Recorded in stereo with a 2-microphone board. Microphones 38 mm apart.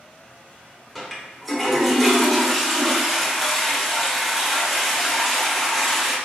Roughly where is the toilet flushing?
Centre.